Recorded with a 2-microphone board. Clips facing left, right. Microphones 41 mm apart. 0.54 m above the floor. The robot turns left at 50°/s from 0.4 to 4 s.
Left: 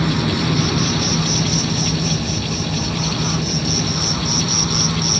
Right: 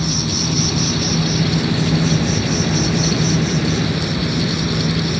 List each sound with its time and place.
0.0 s an insect: 30° left, 0.9 m; by 5.2 s 150° right, 0.9 m